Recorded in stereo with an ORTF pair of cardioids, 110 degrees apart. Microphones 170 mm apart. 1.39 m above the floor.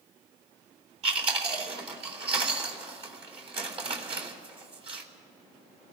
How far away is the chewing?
About 3 m.